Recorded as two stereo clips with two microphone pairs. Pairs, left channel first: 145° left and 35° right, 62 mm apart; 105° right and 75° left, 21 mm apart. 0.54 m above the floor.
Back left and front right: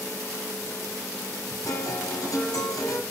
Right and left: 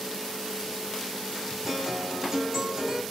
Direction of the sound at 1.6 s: 135° left.